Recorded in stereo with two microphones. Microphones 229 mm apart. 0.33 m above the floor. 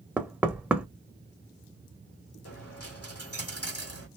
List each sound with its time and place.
0.2 s knocking: 5° right (ahead or behind), 0.6 m
2.5 s a dropped coin: 80° left, 1.7 m